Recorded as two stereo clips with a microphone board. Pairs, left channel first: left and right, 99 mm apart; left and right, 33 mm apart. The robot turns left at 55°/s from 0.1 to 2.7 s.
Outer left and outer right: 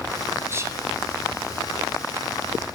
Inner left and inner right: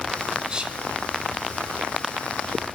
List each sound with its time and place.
0.5 s whispering: 25° right (ahead or behind), 1.9 m; by 0.8 s 30° right (ahead or behind), 1.9 m